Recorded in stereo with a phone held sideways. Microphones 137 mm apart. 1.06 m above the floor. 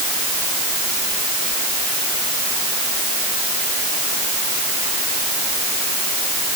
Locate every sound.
Only background noise.